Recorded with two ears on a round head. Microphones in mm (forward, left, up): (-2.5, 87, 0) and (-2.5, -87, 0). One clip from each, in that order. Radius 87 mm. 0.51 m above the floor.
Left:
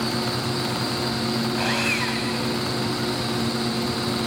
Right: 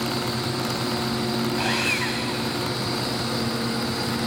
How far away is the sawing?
About 4 m.